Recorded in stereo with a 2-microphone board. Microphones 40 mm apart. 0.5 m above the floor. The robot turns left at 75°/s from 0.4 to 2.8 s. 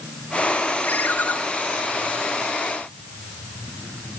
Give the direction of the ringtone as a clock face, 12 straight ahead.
7 o'clock.